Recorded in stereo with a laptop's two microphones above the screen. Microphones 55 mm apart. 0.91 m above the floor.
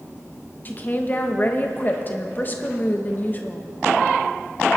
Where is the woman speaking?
35° left (ahead or behind), 0.8 m.